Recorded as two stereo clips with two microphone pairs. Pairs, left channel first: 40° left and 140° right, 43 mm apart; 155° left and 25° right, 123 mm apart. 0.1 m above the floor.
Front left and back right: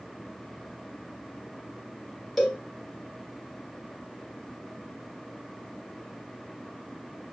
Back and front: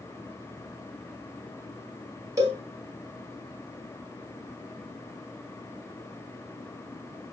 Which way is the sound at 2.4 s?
45° right.